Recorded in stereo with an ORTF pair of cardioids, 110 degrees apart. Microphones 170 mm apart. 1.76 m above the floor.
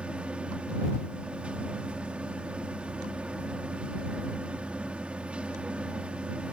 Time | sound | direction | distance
0.0 | a machine running | 5° right | ?